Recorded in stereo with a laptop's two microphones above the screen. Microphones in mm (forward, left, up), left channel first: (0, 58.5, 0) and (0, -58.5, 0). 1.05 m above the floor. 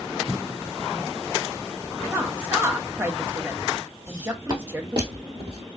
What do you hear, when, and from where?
2.1 s a woman speaking: 20° right (ahead or behind), 0.6 m
4.1 s footsteps: 30° right (ahead or behind), 1.7 m; by 5.6 s 45° right (ahead or behind), 1.4 m